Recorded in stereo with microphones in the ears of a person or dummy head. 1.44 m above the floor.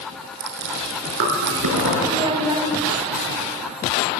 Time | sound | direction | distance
0.4 | chewing | 65° right (ahead or behind) | 4.5 m
2.1 | a child speaking | 25° right (ahead or behind) | 3 m